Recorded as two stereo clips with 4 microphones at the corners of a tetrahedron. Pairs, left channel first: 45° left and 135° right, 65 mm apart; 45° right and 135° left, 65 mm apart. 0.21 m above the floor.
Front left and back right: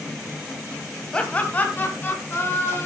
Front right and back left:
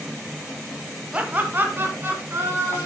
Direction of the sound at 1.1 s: 95° left.